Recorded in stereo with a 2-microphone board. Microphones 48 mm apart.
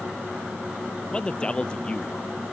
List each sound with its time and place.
1.1 s a man speaking: 20° left (ahead or behind)